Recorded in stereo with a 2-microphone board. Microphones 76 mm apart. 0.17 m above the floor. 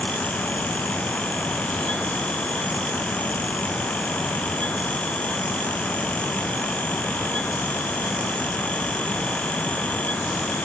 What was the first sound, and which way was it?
Only background noise.